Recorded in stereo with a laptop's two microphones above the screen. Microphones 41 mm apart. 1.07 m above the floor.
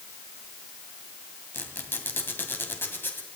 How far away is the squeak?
About 2 m.